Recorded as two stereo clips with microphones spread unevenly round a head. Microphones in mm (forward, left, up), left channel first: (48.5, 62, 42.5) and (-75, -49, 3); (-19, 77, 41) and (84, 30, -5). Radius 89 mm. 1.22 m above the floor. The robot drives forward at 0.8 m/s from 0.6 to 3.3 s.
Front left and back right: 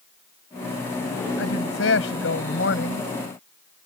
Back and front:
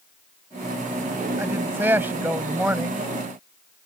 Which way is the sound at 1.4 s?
50° left.